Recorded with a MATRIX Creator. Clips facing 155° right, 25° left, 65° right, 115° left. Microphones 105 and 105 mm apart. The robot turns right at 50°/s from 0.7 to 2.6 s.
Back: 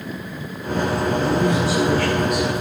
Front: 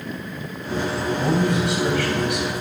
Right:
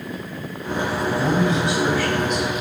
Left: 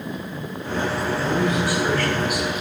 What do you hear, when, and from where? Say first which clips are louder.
1.2 s a man speaking: even, right 2 dB; 25° right, 4 m; by 2.6 s 45° left, 4 m